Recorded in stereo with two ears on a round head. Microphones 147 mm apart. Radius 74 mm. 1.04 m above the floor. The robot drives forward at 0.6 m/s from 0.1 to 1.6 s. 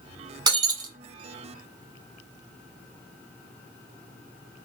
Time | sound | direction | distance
0.5 | breaking glass | 25° right (ahead or behind) | 1.0 m